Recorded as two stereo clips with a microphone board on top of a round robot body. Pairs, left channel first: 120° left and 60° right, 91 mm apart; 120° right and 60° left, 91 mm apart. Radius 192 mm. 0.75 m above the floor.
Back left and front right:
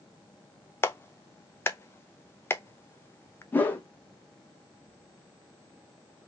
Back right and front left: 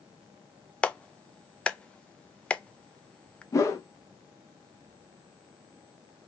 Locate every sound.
0.8 s a clap: 170° left, 0.7 m
3.5 s a whoosh: 170° right, 1.2 m